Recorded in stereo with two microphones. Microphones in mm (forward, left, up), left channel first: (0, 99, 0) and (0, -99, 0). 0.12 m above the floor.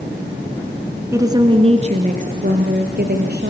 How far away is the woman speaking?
About 1.8 m.